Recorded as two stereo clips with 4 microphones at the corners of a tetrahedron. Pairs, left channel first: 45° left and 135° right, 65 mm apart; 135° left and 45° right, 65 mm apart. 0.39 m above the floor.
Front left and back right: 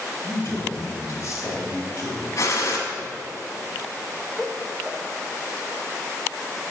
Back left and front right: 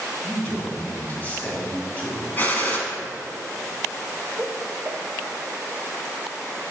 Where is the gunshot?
75° left, 1.4 m.